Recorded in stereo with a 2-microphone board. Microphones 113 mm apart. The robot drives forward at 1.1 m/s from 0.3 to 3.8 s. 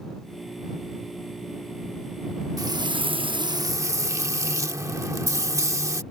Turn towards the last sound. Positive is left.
turn(degrees=-30)  # may be behind; listen again after turning